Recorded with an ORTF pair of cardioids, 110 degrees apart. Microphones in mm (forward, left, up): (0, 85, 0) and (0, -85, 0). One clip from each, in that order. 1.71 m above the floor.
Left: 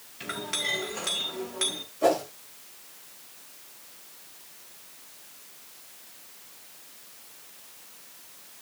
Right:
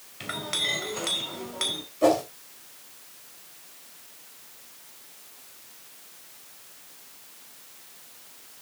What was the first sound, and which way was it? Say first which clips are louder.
A clink: right 2 dB; 20° right.